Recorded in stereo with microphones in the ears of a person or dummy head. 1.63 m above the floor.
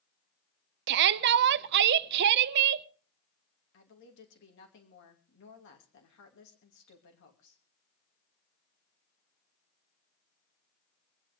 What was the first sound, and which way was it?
A shout, 60° right (ahead or behind).